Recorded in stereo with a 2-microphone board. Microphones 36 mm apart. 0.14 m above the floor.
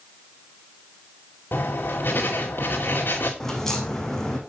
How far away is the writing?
About 2.5 m.